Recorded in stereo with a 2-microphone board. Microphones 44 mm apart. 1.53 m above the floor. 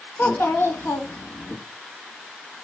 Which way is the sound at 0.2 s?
60° left (ahead or behind).